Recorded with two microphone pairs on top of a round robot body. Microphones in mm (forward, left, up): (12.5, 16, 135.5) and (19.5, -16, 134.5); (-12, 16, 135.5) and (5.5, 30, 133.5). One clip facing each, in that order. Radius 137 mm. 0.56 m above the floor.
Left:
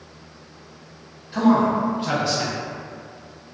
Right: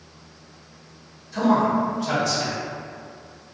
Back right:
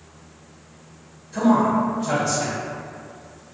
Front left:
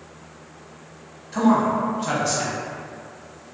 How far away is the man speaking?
About 1.0 m.